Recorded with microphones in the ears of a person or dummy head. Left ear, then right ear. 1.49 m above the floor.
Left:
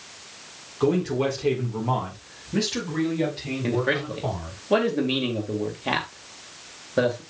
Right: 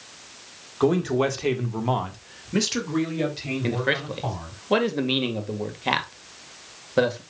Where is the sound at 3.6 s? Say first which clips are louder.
Left 1 dB; 20° right (ahead or behind), 1.8 m.